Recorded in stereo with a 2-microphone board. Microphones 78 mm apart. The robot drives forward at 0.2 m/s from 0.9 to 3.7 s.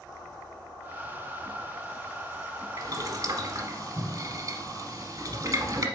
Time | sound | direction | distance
2.8 | boiling | 45° right (ahead or behind) | 1.0 m